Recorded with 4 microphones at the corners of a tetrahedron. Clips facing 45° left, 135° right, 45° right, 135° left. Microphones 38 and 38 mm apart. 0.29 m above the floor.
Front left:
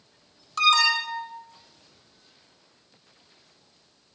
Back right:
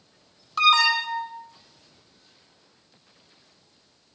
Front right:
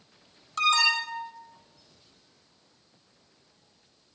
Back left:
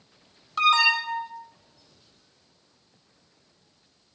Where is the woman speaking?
No woman speaking in this recording.